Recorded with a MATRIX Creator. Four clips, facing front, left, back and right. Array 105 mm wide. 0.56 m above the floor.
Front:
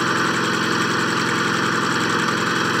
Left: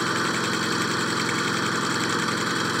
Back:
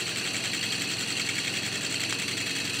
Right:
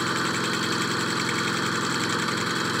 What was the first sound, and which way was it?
An engine running, 5° left.